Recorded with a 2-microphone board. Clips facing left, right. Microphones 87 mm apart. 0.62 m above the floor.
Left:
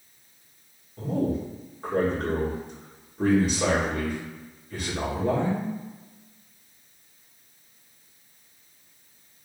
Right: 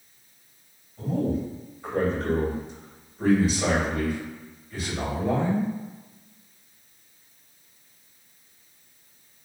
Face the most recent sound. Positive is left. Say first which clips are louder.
# even
turn(degrees=55)  # may be behind; listen again after turning